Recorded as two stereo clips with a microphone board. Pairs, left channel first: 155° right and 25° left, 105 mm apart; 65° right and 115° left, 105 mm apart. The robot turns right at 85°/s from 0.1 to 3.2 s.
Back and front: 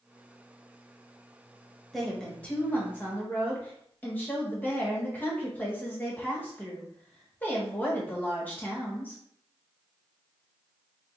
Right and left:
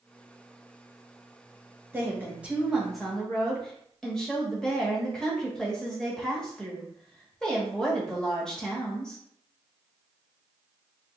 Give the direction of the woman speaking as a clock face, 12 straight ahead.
8 o'clock.